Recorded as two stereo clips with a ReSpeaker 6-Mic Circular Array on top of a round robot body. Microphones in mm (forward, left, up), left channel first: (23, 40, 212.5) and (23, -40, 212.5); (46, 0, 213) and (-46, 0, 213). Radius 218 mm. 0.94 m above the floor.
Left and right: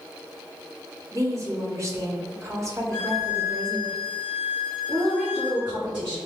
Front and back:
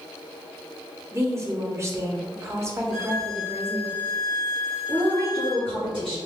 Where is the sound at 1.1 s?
130° right, 1.1 m.